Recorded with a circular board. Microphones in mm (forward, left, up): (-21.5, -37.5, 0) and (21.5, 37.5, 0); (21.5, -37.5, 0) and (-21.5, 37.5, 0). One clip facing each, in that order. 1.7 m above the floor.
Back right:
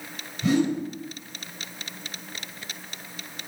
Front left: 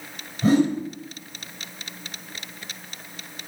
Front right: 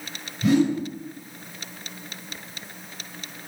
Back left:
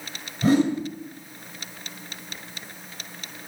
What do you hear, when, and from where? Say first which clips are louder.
0.4 s a whoosh: front left 4 dB, even; 90° left, 1.4 m